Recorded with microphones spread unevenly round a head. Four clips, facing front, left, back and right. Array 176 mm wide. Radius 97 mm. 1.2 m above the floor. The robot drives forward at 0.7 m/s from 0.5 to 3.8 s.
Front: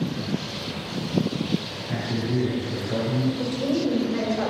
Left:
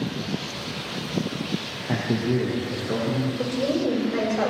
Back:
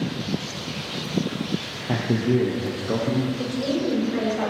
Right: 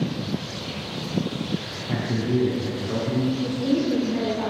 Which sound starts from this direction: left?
A woman speaking, at 3.4 s.